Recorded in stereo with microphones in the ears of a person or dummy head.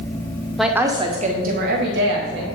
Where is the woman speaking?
Centre (ahead or behind), 0.9 m; by 2.4 s 70° right (ahead or behind), 1.8 m.